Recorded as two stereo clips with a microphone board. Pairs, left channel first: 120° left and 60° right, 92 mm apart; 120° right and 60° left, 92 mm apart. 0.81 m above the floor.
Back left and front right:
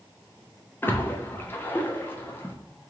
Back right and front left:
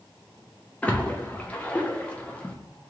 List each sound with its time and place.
0.8 s a splash: 175° left, 0.6 m